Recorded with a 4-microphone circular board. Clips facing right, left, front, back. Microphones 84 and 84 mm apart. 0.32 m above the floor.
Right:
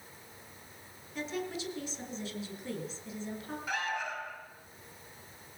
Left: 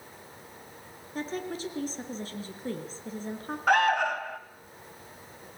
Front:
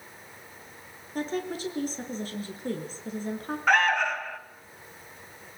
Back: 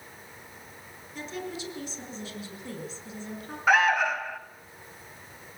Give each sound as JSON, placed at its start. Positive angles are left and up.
{"t": 1.1, "sound": "a woman speaking", "azimuth_deg": 45, "distance_m": 4.5}
{"t": 3.7, "sound": "an alarm", "azimuth_deg": 95, "distance_m": 1.4}